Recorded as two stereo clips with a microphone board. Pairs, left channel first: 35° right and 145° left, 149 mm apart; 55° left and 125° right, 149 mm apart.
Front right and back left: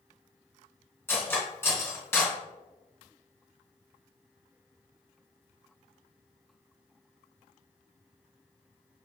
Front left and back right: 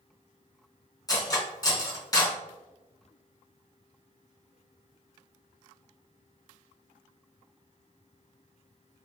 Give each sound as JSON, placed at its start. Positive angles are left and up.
{"t": 1.1, "sound": "cutlery clinking", "azimuth_deg": 25, "distance_m": 0.7}